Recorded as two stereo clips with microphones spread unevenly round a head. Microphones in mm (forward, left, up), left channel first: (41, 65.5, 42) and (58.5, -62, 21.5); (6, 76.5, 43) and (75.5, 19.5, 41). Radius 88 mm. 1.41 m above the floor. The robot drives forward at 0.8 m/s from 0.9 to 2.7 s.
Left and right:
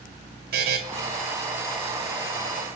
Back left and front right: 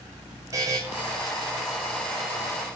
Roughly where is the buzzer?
Right.